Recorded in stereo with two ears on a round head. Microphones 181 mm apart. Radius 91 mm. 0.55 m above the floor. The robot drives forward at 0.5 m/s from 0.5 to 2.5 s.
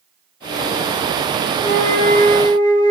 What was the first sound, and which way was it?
A flute, 15° left (ahead or behind).